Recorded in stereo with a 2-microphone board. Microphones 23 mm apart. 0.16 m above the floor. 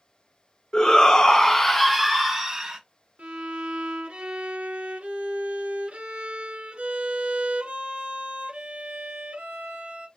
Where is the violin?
55° right (ahead or behind), 1.5 m.